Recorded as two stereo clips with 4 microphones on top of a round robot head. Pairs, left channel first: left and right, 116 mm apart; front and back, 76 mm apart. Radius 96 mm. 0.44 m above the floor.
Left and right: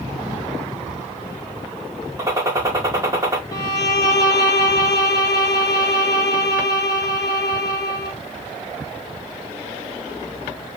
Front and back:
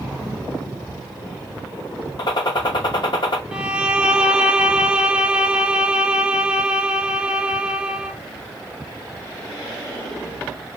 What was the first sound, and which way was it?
A gunshot, 25° right.